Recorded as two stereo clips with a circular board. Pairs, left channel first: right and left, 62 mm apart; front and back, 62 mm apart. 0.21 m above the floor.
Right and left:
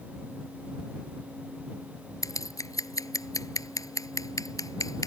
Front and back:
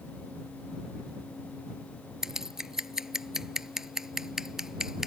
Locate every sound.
2.2 s scissors: 100° right